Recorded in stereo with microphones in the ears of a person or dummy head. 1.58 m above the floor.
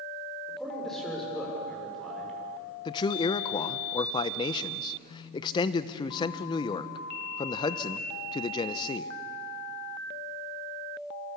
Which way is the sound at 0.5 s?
5° left (ahead or behind).